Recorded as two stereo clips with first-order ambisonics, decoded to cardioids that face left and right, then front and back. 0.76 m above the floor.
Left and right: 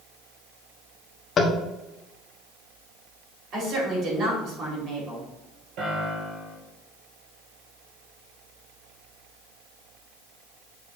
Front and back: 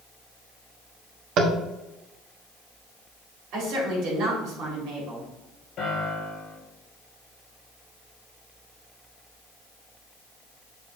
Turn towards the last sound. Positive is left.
turn(degrees=-65)